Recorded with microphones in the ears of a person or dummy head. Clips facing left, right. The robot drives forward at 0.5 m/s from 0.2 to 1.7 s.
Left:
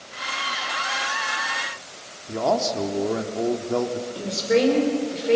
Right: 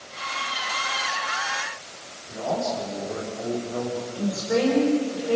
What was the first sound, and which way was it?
A man speaking, 80° left.